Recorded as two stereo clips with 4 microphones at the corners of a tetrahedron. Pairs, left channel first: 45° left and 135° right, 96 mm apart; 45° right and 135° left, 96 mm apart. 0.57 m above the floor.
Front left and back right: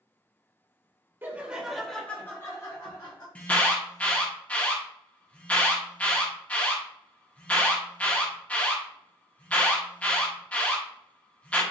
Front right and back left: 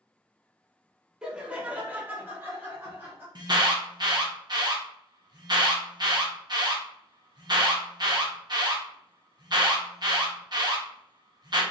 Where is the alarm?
115° left, 0.6 m.